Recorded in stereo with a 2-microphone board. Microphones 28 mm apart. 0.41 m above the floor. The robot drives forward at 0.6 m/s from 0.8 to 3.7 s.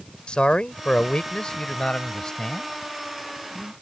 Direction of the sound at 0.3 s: 35° left (ahead or behind).